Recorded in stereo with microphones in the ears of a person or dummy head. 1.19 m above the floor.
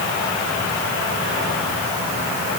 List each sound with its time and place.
Only background noise.